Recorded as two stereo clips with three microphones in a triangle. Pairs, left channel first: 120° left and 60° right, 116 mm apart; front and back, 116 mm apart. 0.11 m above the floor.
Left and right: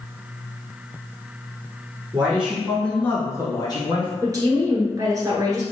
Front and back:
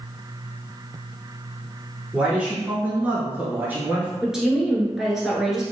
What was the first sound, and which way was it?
A man speaking, 110° right.